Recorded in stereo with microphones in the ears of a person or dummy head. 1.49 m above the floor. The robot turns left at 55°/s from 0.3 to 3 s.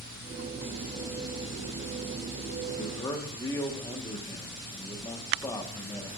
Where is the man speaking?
30° left (ahead or behind), 1.3 m; by 6.2 s 20° left (ahead or behind), 1.3 m.